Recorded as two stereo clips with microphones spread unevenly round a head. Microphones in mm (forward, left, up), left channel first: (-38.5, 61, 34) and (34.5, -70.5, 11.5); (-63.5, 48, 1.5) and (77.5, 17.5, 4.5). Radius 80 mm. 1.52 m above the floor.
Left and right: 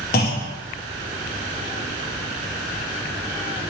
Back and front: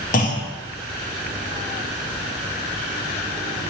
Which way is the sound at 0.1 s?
140° left.